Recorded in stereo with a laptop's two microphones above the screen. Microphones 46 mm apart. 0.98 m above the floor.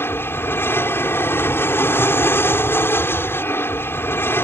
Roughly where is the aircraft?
Left.